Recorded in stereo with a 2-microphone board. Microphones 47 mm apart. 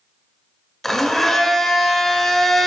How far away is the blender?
About 0.5 m.